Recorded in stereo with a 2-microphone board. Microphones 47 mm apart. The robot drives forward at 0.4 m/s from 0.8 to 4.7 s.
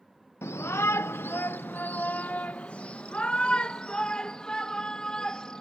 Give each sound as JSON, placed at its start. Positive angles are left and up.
{"t": 0.4, "sound": "a shout", "side_deg": 70}